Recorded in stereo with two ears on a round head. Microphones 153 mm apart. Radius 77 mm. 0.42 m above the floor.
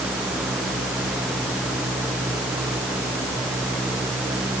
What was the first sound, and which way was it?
Only background noise.